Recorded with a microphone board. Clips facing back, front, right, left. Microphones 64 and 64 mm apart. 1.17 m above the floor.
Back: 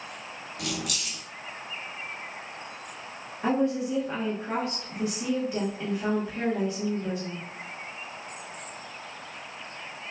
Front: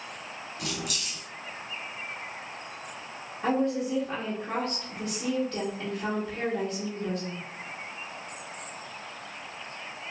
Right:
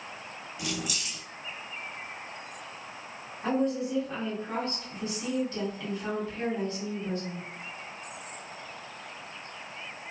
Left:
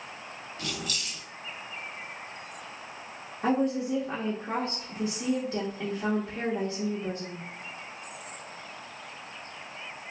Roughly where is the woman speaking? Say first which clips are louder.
Back 1 dB, left 2 dB; left.